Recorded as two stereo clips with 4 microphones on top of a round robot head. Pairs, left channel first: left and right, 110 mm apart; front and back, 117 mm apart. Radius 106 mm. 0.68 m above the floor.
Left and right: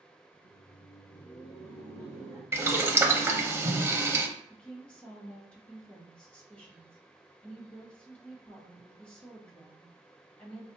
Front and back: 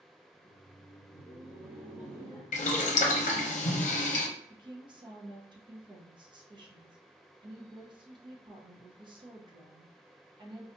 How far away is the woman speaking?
About 0.9 m.